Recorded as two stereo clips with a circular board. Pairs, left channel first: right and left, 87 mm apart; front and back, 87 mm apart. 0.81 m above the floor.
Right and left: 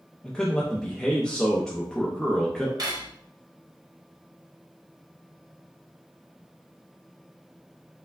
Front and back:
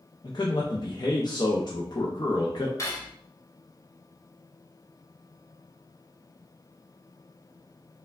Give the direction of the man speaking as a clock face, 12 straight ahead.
12 o'clock.